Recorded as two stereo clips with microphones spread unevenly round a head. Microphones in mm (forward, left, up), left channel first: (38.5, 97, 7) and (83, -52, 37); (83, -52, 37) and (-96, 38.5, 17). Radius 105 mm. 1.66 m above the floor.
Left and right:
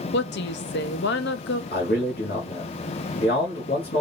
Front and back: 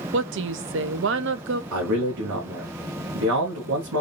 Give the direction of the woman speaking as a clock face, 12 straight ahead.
8 o'clock.